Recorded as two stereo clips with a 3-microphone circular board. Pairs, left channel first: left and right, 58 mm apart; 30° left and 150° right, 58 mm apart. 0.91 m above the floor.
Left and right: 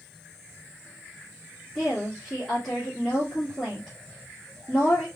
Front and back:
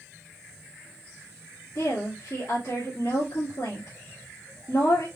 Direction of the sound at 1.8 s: 10° left.